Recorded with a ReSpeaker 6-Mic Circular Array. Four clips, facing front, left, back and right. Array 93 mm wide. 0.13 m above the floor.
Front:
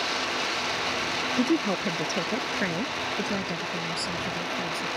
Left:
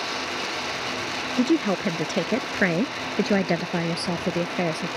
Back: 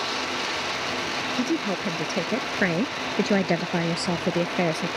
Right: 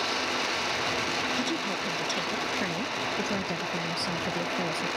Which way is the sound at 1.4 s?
75° left.